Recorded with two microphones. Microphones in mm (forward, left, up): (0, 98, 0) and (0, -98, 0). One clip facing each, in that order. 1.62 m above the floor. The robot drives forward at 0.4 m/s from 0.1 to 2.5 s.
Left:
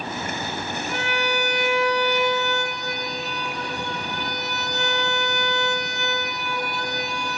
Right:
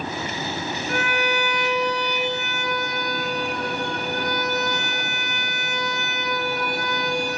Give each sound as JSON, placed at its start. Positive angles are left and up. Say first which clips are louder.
{"t": 0.9, "sound": "a violin", "louder": "right 2 dB", "side_deg": -55, "distance_m": 0.9}